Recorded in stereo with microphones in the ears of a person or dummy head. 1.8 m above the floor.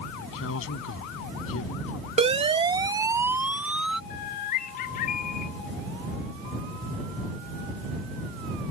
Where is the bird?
45° left (ahead or behind).